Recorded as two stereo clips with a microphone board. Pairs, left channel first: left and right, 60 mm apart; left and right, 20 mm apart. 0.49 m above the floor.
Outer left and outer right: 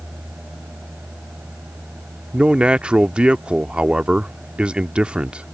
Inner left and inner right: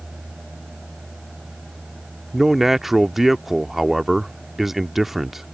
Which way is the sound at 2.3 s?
20° right (ahead or behind).